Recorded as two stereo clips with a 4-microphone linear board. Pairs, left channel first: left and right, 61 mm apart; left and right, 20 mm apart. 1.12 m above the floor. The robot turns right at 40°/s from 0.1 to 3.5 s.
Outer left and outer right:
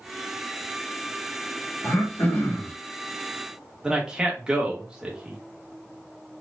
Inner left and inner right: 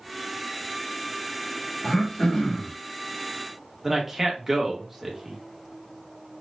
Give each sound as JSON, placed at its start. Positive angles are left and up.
{"t": 1.8, "sound": "throat clearing", "azimuth_deg": 115, "distance_m": 1.0}
{"t": 3.8, "sound": "a man speaking", "side_deg": -15, "distance_m": 1.2}